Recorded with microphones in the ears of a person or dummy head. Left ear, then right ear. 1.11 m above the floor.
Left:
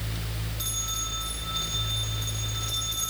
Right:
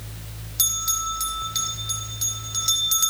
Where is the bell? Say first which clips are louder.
Right 7 dB; 85° right, 2.5 m.